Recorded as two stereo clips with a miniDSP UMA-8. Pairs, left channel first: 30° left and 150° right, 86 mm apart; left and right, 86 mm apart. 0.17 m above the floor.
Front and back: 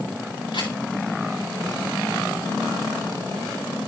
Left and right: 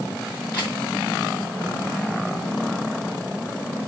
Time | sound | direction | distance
0.5 | a camera shutter | 20° left | 7.5 m